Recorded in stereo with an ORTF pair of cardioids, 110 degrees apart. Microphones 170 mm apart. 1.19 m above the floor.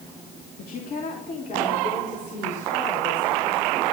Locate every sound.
0.6 s a woman speaking: 55° left, 2.5 m; by 3.6 s 45° left, 6.5 m